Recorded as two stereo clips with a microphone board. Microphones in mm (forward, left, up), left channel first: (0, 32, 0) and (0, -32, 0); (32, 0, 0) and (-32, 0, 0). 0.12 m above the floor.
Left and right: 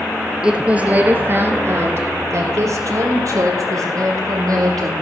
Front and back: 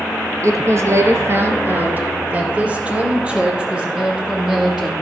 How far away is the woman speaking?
About 2.0 m.